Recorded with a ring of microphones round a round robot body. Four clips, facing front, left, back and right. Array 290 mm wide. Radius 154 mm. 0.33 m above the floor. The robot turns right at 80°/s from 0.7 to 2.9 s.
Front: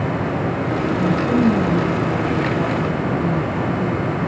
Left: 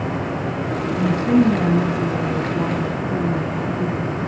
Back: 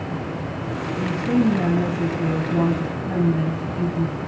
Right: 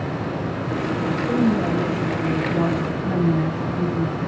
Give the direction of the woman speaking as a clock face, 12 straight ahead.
9 o'clock.